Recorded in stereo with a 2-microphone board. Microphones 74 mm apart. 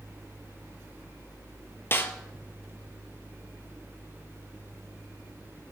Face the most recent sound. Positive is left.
turn(degrees=30)  # may be behind; listen again after turning